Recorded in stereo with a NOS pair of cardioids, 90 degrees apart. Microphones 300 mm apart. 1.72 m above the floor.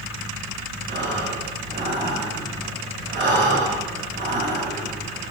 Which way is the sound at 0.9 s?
40° right.